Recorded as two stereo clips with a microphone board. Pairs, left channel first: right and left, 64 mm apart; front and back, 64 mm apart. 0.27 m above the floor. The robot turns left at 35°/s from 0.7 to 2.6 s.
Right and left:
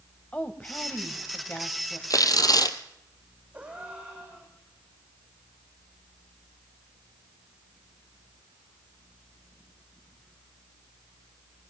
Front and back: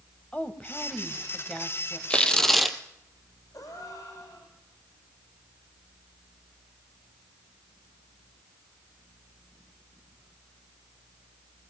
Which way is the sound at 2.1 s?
75° right.